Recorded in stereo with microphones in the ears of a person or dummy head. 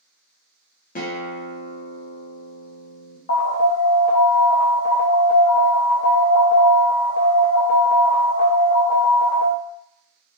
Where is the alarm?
45° left (ahead or behind), 0.8 m.